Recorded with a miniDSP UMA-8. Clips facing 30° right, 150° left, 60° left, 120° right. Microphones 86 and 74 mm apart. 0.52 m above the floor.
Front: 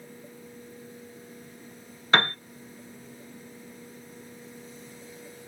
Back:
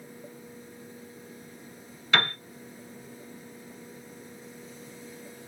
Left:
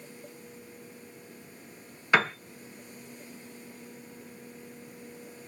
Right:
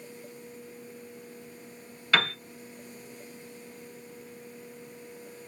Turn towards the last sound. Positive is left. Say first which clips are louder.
# front 3 dB, left 2 dB
turn(degrees=0)